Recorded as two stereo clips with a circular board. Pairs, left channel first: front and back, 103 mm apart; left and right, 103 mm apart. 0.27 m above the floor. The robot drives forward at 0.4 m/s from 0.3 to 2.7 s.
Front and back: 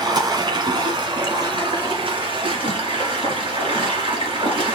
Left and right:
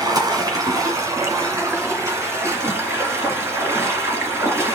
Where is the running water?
140° right, 1.9 m; by 4.8 s 155° right, 2.5 m.